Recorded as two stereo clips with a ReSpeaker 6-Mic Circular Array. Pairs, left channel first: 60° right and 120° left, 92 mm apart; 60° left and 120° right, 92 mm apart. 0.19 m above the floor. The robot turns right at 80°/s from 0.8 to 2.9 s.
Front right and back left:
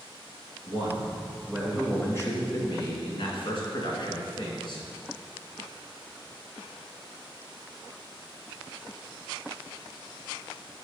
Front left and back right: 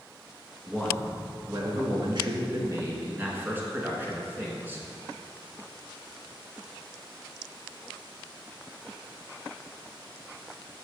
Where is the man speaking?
135° left, 2 m; by 4.9 s 55° right, 2 m.